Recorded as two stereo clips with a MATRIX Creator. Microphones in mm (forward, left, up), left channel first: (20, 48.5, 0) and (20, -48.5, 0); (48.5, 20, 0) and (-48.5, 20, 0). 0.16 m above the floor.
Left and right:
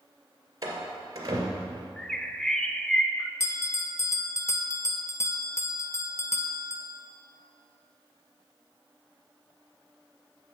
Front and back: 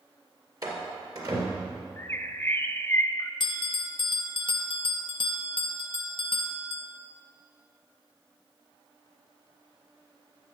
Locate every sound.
0.6 s a door slam: 135° right, 2 m
2.0 s a bird: 15° left, 0.6 m
3.4 s a bell: 30° left, 0.6 m